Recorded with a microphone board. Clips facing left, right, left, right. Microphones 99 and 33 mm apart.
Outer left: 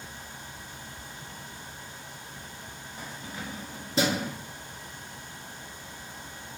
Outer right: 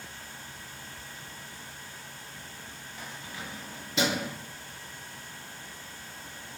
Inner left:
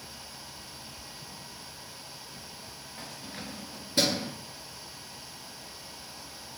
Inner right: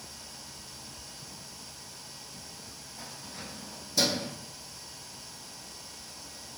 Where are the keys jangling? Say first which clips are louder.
Outer left 2 dB, inner left 2 dB; 40° left (ahead or behind), 1.1 m; by 4.3 s 35° left (ahead or behind), 1.2 m.